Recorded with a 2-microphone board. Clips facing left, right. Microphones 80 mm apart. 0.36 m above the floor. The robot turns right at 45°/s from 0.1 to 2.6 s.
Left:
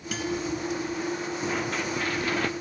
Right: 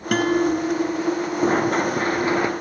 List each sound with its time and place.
0.1 s a guitar: 115° right; by 1.3 s 60° right
1.4 s running footsteps: 45° right (ahead or behind); by 2.5 s 20° right (ahead or behind)